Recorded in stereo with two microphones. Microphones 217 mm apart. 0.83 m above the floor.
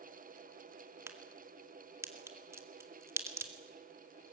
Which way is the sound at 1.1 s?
10° right (ahead or behind).